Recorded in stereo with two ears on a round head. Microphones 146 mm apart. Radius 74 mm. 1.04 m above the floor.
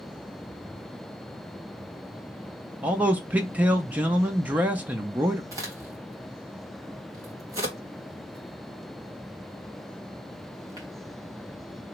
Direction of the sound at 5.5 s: 20° right (ahead or behind).